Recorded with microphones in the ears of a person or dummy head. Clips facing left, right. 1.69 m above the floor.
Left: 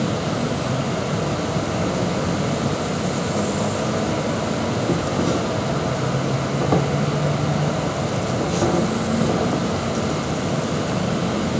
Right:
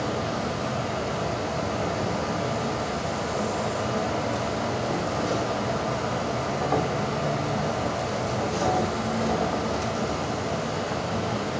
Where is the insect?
50° left (ahead or behind), 1.7 m.